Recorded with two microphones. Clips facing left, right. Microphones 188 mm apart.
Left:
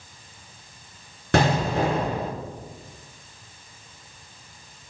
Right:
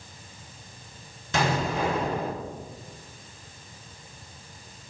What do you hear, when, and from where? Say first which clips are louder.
1.3 s an explosion: left 5 dB; 65° left (ahead or behind), 4 m